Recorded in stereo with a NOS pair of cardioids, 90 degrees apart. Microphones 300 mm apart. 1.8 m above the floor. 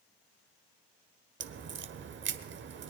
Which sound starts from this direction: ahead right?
A crack, at 1.4 s.